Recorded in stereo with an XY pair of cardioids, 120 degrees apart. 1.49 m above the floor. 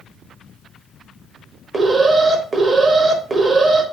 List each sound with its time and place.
1.7 s an alarm: 35° right, 0.7 m